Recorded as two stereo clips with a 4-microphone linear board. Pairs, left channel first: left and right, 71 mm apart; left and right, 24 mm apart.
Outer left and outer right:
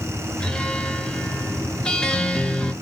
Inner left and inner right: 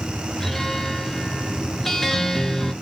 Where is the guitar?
10° left (ahead or behind), 0.8 m.